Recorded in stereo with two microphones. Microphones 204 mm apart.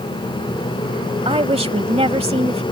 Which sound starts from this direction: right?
A woman speaking, at 1.2 s.